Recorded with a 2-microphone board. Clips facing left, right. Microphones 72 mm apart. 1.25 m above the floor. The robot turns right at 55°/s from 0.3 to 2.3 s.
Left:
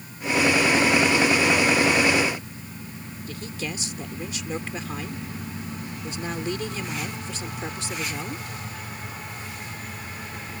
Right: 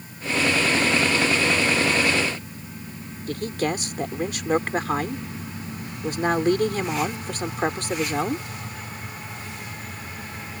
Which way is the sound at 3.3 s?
60° right (ahead or behind).